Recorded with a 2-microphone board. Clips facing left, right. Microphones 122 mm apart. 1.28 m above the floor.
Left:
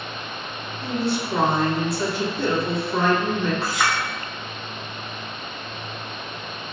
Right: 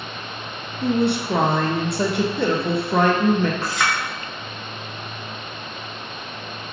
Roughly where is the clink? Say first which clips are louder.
Even; centre.